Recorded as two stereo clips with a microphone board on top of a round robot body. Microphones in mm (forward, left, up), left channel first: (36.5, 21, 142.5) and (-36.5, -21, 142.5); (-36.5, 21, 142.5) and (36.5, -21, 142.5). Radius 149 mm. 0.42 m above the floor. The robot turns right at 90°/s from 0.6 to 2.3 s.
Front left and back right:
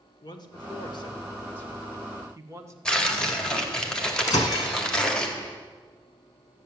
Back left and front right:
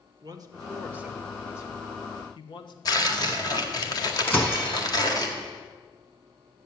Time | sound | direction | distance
0.2 | a man speaking | 5° left | 1.9 m
2.9 | tearing paper | 110° left | 1.9 m
4.3 | breaking glass | 80° left | 2 m